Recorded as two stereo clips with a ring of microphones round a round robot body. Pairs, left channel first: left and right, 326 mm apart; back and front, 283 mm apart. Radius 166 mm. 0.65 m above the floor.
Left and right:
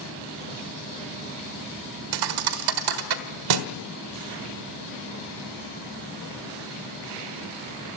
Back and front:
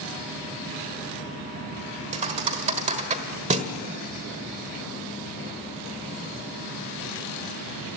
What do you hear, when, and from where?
2.1 s a thud: 70° right, 1.3 m